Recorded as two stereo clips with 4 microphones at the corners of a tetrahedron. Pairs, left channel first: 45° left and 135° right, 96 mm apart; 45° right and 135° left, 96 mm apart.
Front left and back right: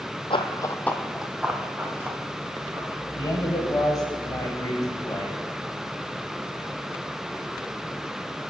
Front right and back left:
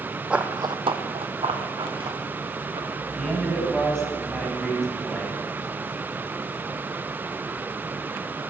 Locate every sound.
0.3 s running footsteps: 55° left, 0.6 m; by 3.0 s 165° left, 2.5 m
3.1 s a man speaking: 35° left, 1.7 m